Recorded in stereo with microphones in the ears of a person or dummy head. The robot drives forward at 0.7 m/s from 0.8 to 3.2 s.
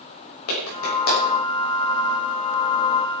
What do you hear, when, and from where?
0.5 s a clap: 80° left, 6.5 m; by 1.2 s 75° left (ahead or behind), 6.5 m